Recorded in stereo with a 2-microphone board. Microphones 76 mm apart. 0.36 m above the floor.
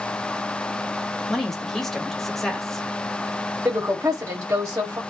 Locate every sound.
1.3 s a woman speaking: 5° left (ahead or behind), 1.4 m
3.6 s a woman speaking: 50° right (ahead or behind), 1.2 m